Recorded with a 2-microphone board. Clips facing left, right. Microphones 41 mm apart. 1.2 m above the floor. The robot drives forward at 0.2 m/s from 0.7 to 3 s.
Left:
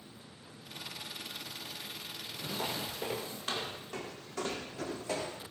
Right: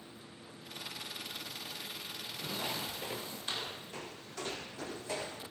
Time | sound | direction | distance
2.6 | footsteps | 80° left | 6 m